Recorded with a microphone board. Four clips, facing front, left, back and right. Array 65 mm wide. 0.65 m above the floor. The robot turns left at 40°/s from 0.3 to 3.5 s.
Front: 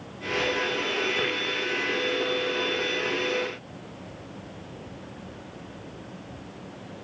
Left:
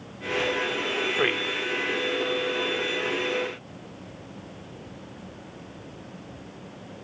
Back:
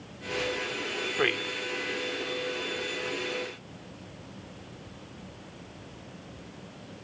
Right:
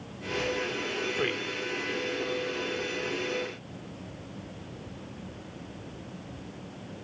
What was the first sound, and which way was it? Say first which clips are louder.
A man speaking: left 6 dB, back 1 dB; 115° left.